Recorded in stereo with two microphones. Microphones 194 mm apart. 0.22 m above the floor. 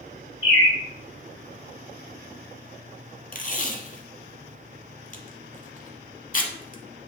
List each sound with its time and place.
0.4 s a bird: 65° left (ahead or behind), 2 m
3.3 s tape being pulled: 45° left (ahead or behind), 0.6 m